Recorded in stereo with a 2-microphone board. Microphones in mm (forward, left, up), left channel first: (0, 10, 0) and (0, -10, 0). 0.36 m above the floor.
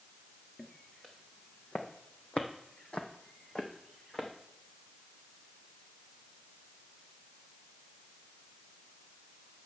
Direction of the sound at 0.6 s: 40° left (ahead or behind).